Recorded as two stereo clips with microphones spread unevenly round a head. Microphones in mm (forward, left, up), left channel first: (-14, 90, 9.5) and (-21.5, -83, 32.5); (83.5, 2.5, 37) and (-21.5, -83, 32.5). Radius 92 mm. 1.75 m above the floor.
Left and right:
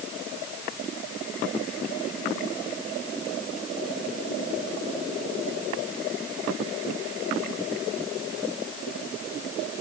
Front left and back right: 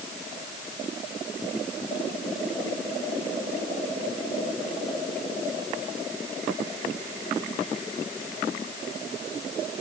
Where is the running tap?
I don't hear a running tap.